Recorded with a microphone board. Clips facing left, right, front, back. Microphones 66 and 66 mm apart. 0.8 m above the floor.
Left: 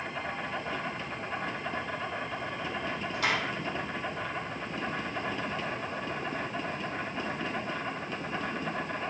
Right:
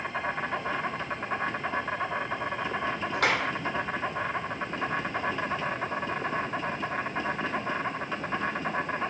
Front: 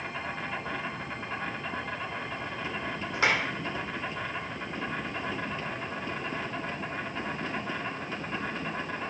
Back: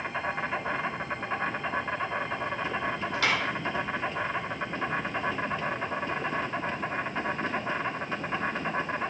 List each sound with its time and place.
0.0 s an insect: 120° right, 2 m
3.1 s a clap: 65° right, 2 m